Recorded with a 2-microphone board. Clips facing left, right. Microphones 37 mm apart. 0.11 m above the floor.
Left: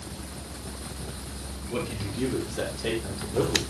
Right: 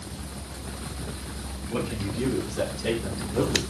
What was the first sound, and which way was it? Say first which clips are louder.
A man speaking: right 2 dB; 5° left (ahead or behind).